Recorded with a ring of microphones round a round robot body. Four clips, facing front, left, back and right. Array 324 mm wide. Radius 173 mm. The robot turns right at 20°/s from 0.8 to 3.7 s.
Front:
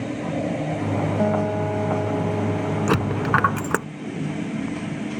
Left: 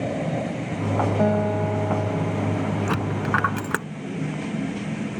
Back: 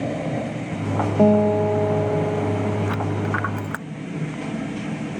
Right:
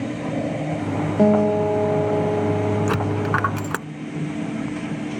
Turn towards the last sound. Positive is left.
turn(degrees=15)